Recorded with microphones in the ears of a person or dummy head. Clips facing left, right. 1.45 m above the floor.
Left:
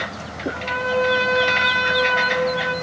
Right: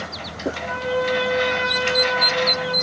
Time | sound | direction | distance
0.5 | a trumpet | 25° left (ahead or behind) | 6 m